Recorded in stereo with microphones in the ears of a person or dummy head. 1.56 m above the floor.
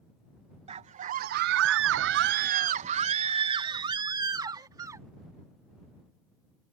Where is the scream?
35° right (ahead or behind); by 5.1 s 15° right (ahead or behind).